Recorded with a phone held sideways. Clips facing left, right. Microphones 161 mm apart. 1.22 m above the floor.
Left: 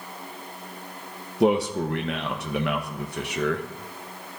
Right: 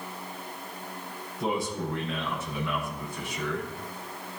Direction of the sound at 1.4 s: 70° left (ahead or behind).